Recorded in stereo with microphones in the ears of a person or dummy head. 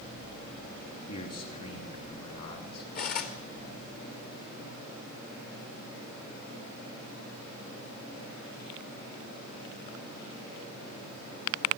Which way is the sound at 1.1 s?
45° left (ahead or behind).